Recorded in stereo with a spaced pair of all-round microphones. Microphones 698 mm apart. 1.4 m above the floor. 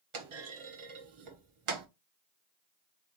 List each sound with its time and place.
0.1 s a clunk: 50° right (ahead or behind), 0.6 m